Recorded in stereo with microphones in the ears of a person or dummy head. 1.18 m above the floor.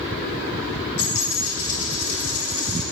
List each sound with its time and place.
1.0 s a dropped coin: 85° left, 3 m